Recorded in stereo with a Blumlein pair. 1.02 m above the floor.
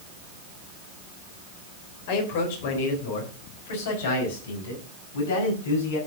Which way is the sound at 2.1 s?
50° left.